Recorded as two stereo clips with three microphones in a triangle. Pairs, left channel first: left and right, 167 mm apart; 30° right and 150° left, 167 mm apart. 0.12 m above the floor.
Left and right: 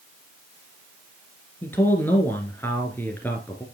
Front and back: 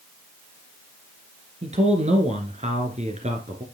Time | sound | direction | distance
1.6 | a man speaking | 160° left | 2 m